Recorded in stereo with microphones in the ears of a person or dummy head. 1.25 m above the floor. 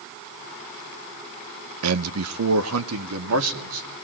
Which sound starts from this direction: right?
A man speaking, at 1.8 s.